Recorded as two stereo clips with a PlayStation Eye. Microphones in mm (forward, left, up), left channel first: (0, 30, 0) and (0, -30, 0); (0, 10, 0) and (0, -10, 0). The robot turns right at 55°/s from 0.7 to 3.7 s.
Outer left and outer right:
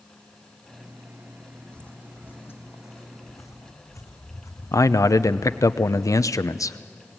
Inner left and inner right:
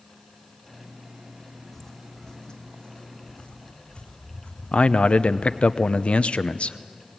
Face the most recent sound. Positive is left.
turn(degrees=70)  # may be behind; listen again after turning